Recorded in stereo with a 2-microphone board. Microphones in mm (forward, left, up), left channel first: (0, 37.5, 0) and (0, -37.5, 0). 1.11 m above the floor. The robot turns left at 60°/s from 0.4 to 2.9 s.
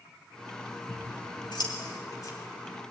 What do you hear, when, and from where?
0.9 s scissors: 50° left (ahead or behind), 3.5 m; by 2.3 s 40° left (ahead or behind), 3.5 m